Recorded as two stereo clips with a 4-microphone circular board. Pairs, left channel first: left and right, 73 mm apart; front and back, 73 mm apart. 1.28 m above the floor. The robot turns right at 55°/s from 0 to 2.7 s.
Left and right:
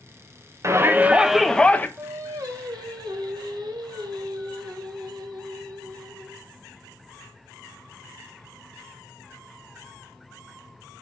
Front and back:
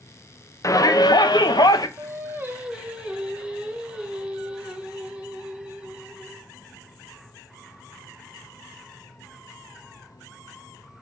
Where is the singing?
145° right, 1.3 m; by 6.5 s 105° right, 1.3 m.